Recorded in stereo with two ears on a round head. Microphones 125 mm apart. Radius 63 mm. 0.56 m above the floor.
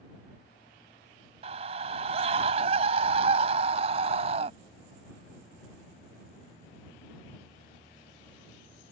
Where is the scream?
45° right (ahead or behind).